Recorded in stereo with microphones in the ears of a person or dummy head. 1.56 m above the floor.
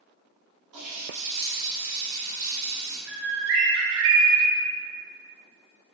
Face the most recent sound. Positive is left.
turn(degrees=-75)  # may be behind; listen again after turning